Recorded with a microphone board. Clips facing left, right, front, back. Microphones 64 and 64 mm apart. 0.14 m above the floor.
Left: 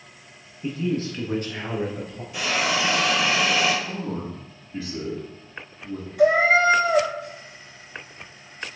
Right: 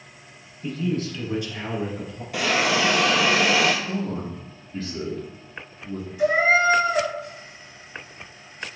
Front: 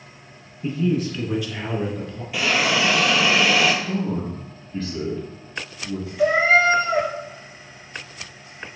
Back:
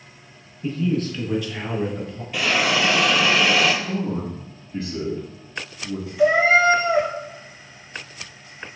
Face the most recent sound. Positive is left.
turn(degrees=95)